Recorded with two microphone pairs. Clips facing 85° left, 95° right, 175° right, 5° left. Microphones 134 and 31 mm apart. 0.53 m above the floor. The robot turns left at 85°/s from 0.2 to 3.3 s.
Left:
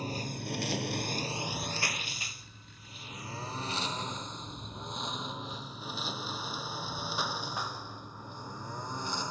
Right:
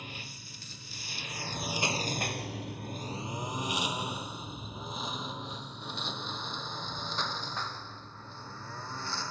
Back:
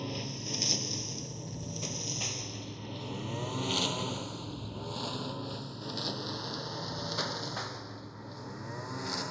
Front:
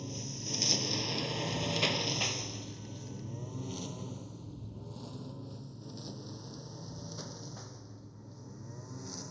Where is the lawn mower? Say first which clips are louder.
Left 10 dB, back 4 dB; 135° left; by 9.3 s 155° left.